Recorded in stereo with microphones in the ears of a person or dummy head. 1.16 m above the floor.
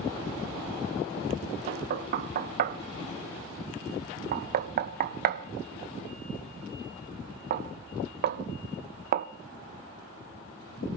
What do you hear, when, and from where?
1.7 s knocking: 55° right (ahead or behind), 0.5 m